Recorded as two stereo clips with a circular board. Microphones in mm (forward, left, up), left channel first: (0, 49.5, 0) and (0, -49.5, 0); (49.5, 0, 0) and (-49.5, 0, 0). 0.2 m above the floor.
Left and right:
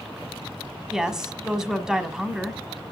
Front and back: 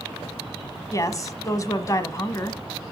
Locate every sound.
0.9 s a woman speaking: 10° right, 1.1 m